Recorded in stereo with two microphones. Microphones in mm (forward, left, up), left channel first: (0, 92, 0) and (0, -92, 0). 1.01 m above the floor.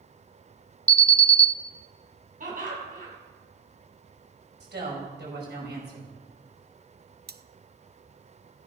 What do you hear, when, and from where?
0.9 s an alarm: 5° left (ahead or behind), 0.6 m
2.4 s laughter: 50° right (ahead or behind), 6.5 m
4.6 s a woman speaking: 70° right (ahead or behind), 6 m
7.3 s cutlery clinking: 60° right (ahead or behind), 0.6 m